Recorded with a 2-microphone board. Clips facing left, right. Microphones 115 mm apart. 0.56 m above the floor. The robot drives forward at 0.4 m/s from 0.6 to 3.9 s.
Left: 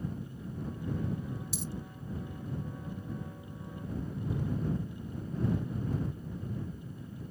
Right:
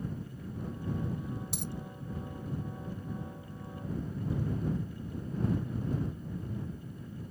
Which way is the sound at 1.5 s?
60° right (ahead or behind).